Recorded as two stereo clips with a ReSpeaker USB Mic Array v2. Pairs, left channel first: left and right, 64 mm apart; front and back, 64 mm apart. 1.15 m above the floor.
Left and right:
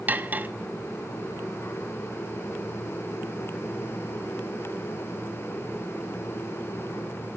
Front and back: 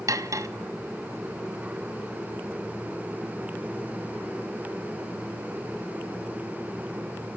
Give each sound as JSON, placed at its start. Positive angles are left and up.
{"t": 0.1, "sound": "cutlery clinking", "azimuth_deg": -150, "distance_m": 1.0}